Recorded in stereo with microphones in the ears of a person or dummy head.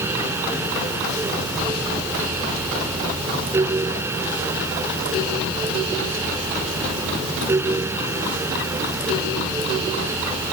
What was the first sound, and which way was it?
Only background noise.